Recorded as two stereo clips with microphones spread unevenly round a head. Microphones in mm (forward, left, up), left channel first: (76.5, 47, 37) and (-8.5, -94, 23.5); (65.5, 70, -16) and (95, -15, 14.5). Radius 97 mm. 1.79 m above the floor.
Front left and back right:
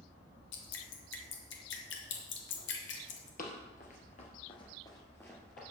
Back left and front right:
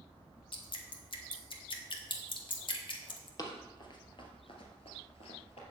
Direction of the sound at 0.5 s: 80° left.